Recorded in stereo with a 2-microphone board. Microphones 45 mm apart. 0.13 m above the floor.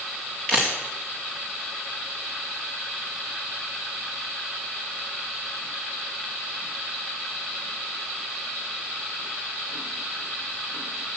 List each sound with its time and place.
0.5 s a camera shutter: 20° left (ahead or behind), 4 m